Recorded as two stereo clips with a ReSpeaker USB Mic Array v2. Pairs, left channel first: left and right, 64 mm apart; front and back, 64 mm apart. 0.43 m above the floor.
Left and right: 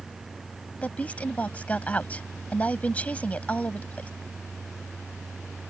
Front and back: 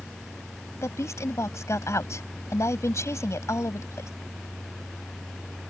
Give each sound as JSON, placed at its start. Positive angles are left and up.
{"t": 0.8, "sound": "a woman speaking", "azimuth_deg": 25}